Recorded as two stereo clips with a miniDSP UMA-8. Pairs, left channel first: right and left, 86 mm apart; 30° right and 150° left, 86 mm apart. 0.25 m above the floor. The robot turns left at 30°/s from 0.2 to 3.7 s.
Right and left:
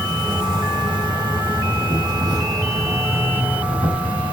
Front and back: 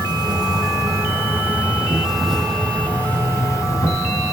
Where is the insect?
120° left, 4.5 m; by 4.3 s 15° left, 4.5 m.